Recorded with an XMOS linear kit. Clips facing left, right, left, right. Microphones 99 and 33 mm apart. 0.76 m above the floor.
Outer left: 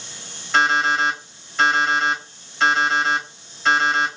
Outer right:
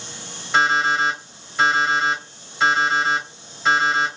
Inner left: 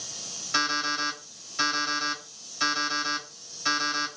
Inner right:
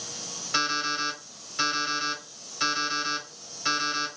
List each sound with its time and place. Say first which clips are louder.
0.5 s an alarm clock: even, even; 5° right (ahead or behind), 1.6 m